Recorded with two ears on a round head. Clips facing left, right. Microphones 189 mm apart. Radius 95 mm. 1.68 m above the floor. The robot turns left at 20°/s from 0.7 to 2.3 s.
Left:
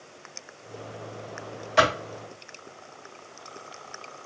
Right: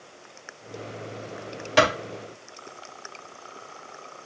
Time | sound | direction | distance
1.8 | a clap | 70° right (ahead or behind) | 2.5 m